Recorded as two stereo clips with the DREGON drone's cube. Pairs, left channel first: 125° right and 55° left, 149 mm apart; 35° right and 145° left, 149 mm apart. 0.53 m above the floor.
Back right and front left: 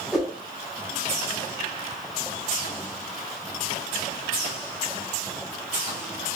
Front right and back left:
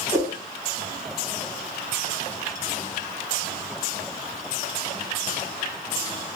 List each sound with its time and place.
0.1 s a whoosh: 135° left, 1.3 m